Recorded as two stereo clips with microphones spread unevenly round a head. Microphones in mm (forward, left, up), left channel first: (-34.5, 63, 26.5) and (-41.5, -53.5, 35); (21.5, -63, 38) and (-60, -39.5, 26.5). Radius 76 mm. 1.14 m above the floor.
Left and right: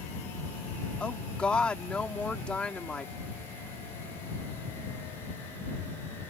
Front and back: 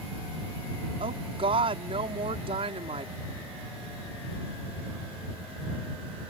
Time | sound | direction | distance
1.0 | a woman speaking | 170° left | ?